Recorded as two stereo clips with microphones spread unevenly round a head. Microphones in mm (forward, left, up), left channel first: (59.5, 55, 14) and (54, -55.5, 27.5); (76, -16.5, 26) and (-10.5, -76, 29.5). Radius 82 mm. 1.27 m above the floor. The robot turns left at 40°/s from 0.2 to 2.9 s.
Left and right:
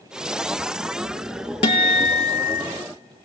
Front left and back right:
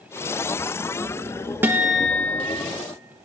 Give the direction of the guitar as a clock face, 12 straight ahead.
7 o'clock.